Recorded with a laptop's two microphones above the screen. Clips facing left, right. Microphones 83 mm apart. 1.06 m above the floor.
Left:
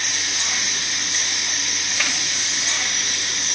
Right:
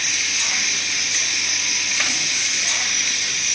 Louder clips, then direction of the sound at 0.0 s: Even; 45° left (ahead or behind).